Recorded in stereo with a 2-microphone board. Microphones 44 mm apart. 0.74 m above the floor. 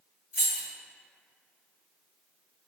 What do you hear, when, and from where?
0.3 s keys jangling: 30° right (ahead or behind), 1.9 m